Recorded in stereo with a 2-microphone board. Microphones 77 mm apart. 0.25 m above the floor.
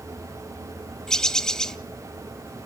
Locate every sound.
1.1 s a bird: 5° left (ahead or behind), 0.7 m